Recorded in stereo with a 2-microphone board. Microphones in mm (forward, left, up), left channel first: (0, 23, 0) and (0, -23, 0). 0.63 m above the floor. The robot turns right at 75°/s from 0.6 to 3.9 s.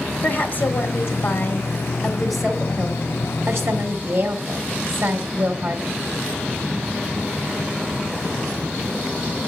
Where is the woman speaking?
60° left, 1.7 m; by 6.0 s 55° right, 1.7 m.